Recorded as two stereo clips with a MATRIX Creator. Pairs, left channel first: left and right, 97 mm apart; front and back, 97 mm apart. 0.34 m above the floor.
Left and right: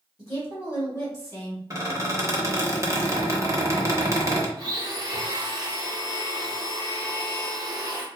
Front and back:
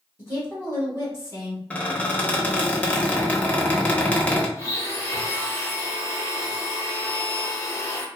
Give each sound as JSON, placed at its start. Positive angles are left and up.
{"t": 0.2, "sound": "a woman speaking", "azimuth_deg": 45, "distance_m": 1.6}
{"t": 1.7, "sound": "a squeak", "azimuth_deg": -65, "distance_m": 0.6}
{"t": 4.6, "sound": "a blender", "azimuth_deg": -55, "distance_m": 0.8}